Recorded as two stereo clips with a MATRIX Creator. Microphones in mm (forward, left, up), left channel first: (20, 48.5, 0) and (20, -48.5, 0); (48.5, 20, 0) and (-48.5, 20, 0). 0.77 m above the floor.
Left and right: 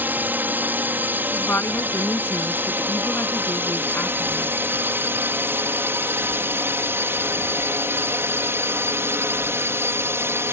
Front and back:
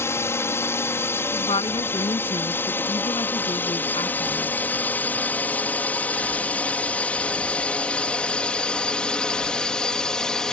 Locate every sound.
0.0 s a drone: 35° right; by 10.5 s 75° right
1.3 s a woman speaking: 20° left